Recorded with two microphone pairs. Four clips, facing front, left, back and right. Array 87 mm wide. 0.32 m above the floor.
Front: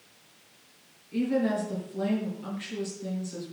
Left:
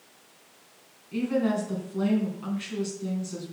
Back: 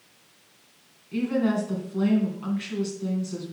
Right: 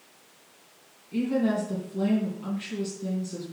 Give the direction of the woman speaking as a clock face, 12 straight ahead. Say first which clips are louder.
Even, back 2 dB; 7 o'clock.